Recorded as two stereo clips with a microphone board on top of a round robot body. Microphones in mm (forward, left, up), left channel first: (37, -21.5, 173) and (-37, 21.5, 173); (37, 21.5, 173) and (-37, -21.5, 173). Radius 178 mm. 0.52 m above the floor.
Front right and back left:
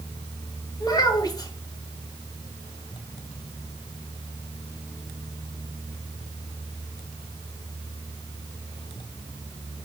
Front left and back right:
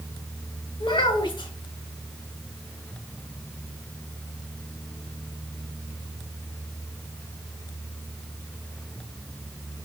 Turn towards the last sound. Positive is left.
turn(degrees=10)